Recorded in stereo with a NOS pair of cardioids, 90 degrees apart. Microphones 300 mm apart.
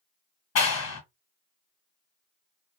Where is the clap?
60° left, 1.4 m.